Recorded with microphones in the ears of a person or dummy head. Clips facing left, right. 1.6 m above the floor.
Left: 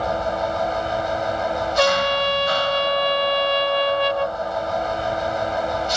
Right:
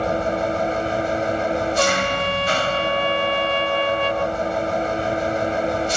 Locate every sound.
0.0 s an engine running: 35° right (ahead or behind)
1.8 s a trumpet: 20° left (ahead or behind)